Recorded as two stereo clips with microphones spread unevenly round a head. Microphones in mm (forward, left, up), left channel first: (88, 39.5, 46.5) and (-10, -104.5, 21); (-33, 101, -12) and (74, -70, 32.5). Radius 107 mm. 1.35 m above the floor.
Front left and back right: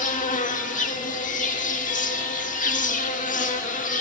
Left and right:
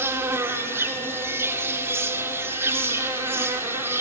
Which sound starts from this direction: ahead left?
An insect, at 0.0 s.